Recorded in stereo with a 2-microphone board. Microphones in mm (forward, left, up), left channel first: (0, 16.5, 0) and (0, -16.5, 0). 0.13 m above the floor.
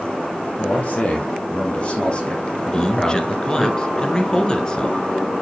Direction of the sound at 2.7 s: 20° left (ahead or behind).